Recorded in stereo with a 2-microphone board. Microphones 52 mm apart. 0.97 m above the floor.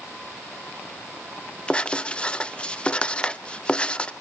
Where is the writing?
20° left (ahead or behind), 0.7 m.